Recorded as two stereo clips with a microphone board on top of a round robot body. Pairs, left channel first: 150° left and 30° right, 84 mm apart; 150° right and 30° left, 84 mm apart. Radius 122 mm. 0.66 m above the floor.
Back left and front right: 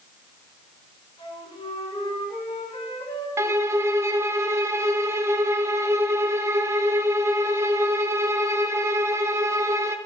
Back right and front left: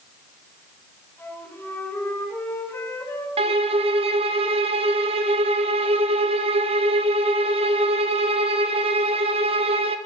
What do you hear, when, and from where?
1.2 s a flute: 145° left, 4.5 m
3.4 s a violin: 30° left, 0.5 m